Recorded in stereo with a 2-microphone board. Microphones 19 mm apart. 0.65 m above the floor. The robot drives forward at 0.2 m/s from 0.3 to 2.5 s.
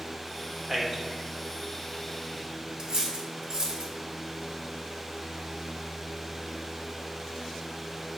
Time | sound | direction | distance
0.7 | a man speaking | 25° right (ahead or behind) | 0.7 m
2.8 | cutlery clinking | 45° right (ahead or behind) | 0.7 m